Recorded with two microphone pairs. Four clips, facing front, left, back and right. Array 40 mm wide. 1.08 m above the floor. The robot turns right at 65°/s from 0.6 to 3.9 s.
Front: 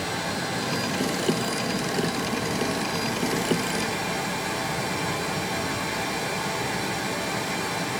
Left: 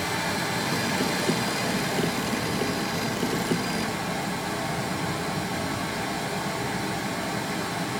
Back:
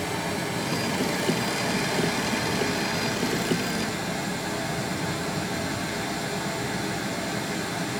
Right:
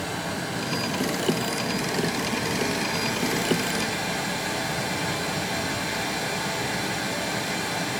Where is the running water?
55° left, 2.5 m; by 8.0 s 90° right, 2.5 m.